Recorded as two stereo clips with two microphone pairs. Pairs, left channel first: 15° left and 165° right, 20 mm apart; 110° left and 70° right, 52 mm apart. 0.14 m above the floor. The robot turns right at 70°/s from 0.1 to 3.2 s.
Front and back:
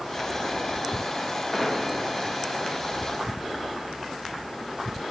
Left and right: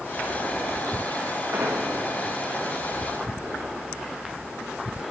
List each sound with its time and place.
1.5 s an explosion: 55° right, 4.5 m; by 1.9 s 35° right, 4.5 m